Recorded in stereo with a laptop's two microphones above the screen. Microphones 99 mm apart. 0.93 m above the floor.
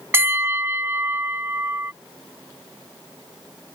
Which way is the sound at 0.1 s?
20° right (ahead or behind).